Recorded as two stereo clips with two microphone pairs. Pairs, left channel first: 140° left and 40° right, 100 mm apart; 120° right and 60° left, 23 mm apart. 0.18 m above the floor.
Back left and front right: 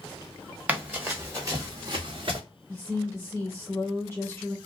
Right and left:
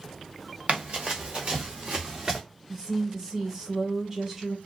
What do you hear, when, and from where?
0.7 s running footsteps: 40° left, 1.5 m; by 2.4 s 5° right, 1.1 m
2.7 s a woman speaking: 95° left, 1.5 m